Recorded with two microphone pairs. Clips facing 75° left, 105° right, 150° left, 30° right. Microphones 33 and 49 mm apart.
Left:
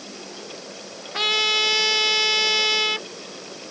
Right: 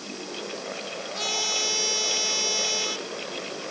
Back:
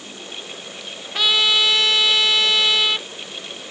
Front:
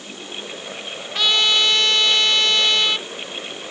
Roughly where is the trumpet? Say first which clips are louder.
Left 9 dB, even; ahead left.